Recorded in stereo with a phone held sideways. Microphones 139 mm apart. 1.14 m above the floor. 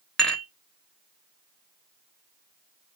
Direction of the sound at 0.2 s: 5° left (ahead or behind).